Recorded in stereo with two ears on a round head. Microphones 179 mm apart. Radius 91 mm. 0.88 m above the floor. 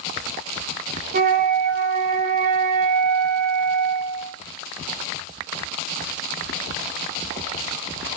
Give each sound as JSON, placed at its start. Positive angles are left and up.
{"t": 1.1, "sound": "a flute", "side_deg": -45, "distance_m": 1.1}